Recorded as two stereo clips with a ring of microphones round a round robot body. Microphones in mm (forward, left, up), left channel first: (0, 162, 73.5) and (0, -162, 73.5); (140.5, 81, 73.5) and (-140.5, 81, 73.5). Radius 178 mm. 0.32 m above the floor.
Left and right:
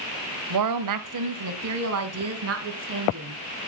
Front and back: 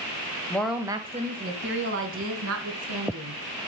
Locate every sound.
0.5 s a woman speaking: 80° right, 1.7 m; by 3.4 s 145° right, 4.5 m